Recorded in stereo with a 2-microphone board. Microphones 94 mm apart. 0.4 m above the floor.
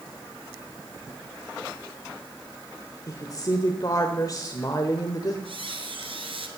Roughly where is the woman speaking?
Left.